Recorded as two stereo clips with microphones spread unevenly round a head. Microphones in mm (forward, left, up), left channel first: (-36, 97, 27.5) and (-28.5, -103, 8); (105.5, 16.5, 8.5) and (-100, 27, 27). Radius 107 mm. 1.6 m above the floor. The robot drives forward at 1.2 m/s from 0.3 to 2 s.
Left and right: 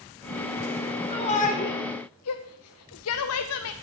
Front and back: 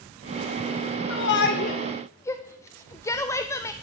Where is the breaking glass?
I don't hear breaking glass.